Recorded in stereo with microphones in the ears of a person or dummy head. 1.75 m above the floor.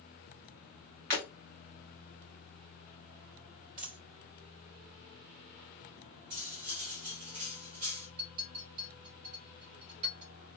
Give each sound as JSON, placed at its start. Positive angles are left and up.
{"t": 1.1, "sound": "breaking glass", "side_deg": -45, "distance_m": 1.2}
{"t": 3.8, "sound": "a dropped coin", "side_deg": -45, "distance_m": 3.0}
{"t": 6.3, "sound": "cutlery clinking", "side_deg": -40, "distance_m": 1.3}
{"t": 8.2, "sound": "a clink", "side_deg": -40, "distance_m": 2.5}